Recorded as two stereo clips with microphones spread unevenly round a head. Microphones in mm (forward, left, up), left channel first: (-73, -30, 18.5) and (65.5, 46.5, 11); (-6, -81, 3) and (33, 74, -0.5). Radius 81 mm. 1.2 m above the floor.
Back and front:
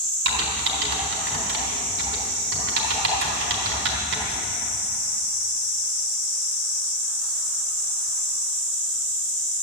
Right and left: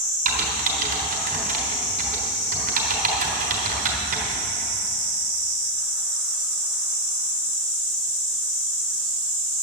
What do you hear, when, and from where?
0.2 s typing on a keyboard: 35° left, 4 m